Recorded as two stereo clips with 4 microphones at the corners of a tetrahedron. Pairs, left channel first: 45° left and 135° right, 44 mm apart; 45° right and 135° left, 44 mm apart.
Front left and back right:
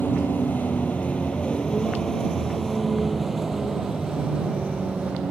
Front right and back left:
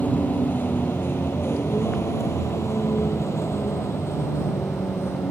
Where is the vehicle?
Straight ahead; by 5.3 s 70° right.